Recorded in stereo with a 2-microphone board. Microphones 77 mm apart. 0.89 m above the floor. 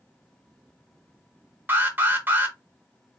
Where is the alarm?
25° right (ahead or behind), 1.0 m.